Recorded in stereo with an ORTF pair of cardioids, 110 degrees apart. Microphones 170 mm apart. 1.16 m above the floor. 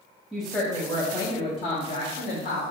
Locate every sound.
0.3 s a woman speaking: 5° right, 1.2 m; by 2.6 s 65° left, 1.6 m